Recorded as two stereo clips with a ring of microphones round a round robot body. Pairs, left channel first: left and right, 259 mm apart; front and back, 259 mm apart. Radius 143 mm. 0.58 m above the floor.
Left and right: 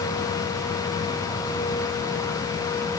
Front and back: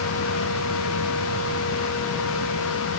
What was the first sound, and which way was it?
Only background noise.